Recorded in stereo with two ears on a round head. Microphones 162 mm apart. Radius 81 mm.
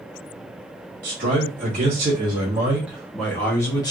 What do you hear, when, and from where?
1.0 s a man speaking: 50° right (ahead or behind), 1.4 m; by 3.9 s 25° left (ahead or behind), 1.1 m